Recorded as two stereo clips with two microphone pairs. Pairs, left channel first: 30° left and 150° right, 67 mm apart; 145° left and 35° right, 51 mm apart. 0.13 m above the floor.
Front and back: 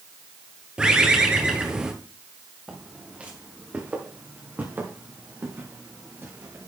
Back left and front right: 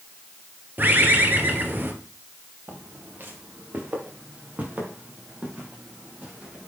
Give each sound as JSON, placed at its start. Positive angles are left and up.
{"t": 0.8, "sound": "a bird", "azimuth_deg": -80, "distance_m": 1.3}
{"t": 2.7, "sound": "footsteps", "azimuth_deg": -80, "distance_m": 2.5}